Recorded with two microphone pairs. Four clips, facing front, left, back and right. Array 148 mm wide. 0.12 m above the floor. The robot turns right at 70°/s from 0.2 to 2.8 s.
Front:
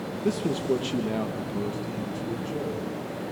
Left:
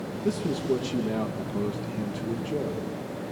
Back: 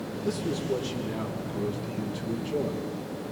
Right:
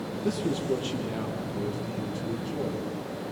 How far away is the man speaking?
About 3 m.